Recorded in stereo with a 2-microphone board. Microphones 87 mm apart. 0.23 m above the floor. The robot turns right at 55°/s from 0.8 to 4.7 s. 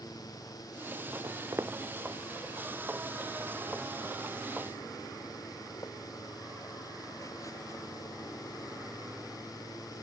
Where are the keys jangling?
No keys jangling in this recording.